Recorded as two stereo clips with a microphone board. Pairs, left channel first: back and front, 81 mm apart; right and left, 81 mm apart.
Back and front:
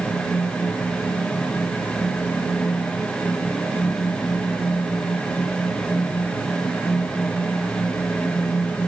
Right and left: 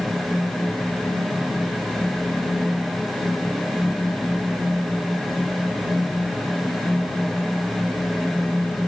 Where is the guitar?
No guitar in this recording.